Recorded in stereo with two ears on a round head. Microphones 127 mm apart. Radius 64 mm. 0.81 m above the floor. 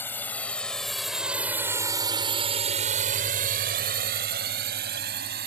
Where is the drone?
15° left (ahead or behind); by 5.5 s 75° right (ahead or behind).